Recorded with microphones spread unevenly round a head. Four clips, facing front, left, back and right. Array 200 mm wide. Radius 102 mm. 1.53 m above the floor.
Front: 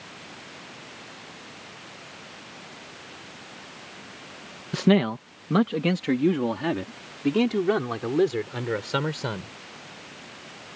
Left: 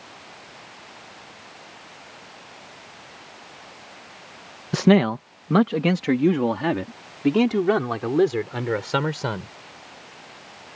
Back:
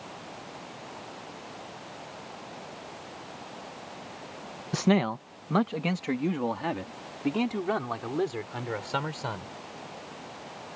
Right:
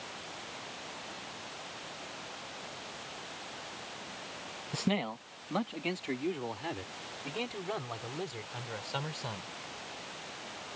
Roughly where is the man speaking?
Left.